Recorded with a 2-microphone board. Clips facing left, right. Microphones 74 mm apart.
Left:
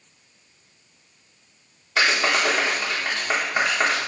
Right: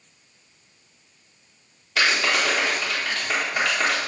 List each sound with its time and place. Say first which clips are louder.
2.0 s a clap: left 1 dB; 30° left (ahead or behind), 1.7 m